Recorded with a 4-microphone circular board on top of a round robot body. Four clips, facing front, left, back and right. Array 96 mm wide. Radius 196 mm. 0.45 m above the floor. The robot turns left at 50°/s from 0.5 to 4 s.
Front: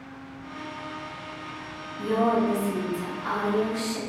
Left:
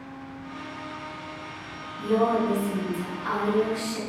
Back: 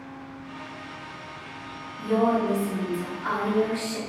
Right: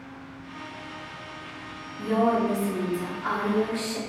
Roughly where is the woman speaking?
Ahead right.